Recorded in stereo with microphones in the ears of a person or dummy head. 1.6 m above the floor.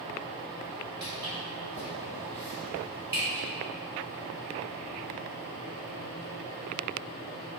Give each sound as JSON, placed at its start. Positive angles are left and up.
{"t": 1.0, "sound": "footsteps", "side_deg": -20, "distance_m": 1.6}